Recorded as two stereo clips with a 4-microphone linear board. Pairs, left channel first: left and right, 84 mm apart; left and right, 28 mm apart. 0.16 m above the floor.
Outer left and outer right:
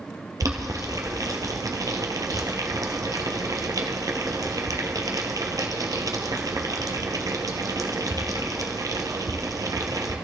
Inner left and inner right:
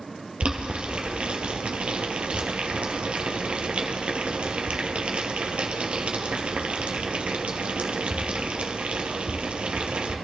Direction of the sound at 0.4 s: 45° right (ahead or behind).